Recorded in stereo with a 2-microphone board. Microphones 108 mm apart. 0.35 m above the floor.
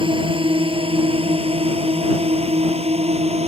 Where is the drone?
55° right (ahead or behind); by 3.5 s 75° right (ahead or behind).